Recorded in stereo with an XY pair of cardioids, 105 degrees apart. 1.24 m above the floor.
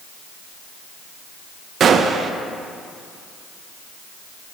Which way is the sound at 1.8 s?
50° right.